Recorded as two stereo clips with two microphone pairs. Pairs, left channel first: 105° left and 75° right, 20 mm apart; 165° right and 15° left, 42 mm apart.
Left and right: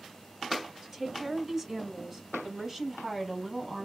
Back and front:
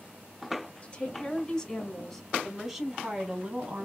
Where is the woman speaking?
145° right, 1.8 m; by 3.9 s straight ahead, 1.6 m.